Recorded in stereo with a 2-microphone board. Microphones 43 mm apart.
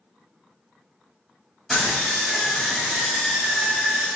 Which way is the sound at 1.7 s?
Centre (ahead or behind).